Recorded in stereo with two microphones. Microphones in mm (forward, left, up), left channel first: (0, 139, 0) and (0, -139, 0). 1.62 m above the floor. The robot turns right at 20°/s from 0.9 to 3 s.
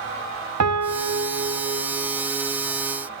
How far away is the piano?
About 0.9 m.